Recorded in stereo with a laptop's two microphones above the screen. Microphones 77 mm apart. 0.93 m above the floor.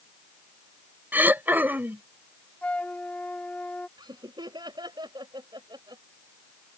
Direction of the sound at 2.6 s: 15° left (ahead or behind).